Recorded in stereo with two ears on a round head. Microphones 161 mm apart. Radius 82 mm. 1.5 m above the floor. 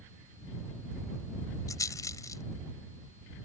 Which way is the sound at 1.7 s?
20° left (ahead or behind).